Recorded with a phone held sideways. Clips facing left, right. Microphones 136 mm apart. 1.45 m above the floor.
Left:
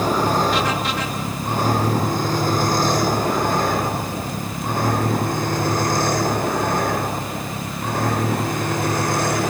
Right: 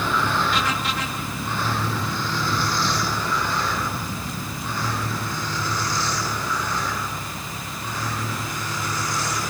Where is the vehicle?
40° left (ahead or behind); by 9.5 s 55° left (ahead or behind).